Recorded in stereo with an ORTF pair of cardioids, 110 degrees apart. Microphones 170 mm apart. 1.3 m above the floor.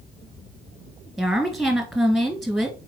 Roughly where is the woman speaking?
Ahead.